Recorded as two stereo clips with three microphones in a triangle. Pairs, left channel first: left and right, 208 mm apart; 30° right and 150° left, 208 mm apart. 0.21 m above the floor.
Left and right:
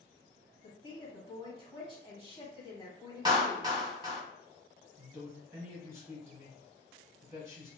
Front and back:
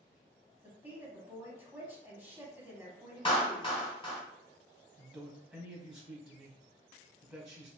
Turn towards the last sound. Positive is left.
turn(degrees=-135)